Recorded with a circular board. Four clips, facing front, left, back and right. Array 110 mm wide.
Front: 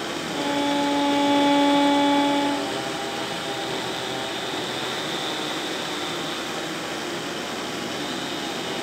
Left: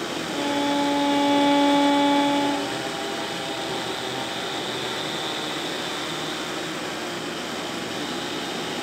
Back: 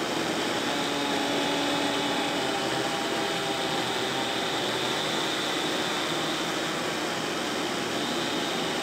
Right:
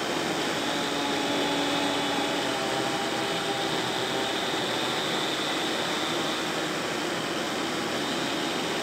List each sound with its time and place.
0.3 s a violin: 45° left